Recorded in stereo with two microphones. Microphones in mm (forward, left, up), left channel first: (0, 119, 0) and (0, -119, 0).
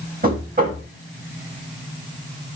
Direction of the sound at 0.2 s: 35° right (ahead or behind).